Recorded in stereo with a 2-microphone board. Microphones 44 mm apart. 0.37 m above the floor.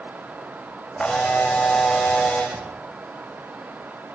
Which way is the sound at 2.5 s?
60° right (ahead or behind).